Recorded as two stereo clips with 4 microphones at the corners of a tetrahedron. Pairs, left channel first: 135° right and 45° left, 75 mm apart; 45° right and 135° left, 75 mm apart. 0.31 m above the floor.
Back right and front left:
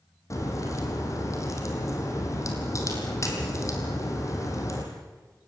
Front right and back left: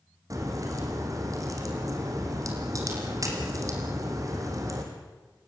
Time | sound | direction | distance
0.3 | a crack | 175° left | 4 m